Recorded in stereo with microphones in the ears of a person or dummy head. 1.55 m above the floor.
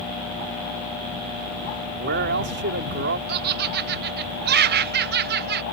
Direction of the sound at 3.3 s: 45° right (ahead or behind).